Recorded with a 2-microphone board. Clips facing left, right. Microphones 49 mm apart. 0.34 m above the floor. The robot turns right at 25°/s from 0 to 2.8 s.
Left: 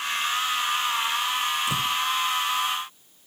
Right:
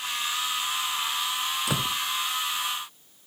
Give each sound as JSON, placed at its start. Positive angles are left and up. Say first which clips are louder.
{"t": 1.7, "sound": "a door slam", "louder": "left 3 dB", "side_deg": -65}